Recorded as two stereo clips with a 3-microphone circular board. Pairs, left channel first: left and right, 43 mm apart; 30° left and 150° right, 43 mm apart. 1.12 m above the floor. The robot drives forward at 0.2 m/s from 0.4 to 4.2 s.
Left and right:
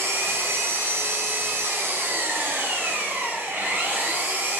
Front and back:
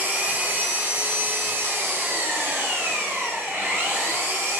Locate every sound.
0.0 s an engine running: 105° right, 0.9 m; by 4.6 s 140° right, 1.3 m